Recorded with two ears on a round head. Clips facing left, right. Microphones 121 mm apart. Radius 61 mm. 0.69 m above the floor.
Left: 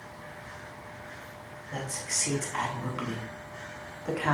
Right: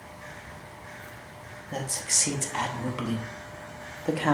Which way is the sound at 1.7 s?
30° right (ahead or behind).